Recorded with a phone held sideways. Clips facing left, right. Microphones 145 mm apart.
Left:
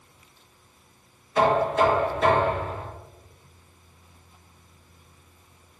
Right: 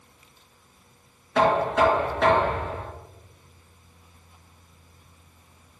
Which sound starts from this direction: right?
Knocking, at 1.4 s.